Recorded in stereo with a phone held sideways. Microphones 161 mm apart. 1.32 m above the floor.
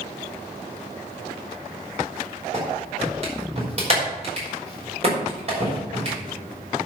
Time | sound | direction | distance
2.5 | a clap | 40° right (ahead or behind) | 5 m